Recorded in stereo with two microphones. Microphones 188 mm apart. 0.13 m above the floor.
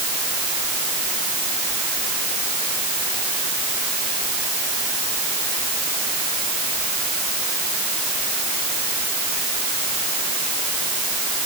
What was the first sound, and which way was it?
Only background noise.